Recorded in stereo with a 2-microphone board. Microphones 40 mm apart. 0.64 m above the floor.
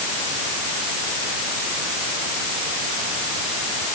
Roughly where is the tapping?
I don't hear tapping.